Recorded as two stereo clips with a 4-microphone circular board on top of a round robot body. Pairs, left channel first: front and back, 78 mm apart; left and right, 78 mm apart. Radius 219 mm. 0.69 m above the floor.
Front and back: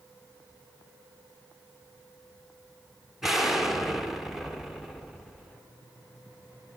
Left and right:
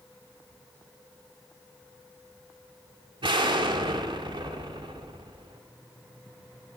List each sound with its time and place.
3.2 s an explosion: 90° right, 1.8 m